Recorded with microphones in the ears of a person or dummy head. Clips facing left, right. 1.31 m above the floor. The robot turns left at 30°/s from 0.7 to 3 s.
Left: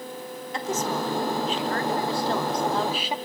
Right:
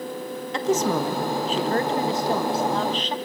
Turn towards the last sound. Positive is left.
turn(degrees=170)